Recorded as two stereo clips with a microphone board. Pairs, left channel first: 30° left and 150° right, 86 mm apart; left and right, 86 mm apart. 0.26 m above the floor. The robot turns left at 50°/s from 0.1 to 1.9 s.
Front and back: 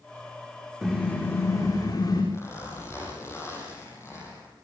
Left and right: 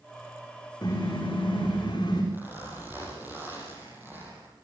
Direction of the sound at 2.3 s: 25° right.